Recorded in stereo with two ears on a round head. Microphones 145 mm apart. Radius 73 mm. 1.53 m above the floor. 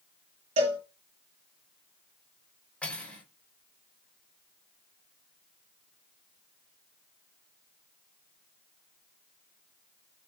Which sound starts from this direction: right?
A cowbell, at 0.6 s.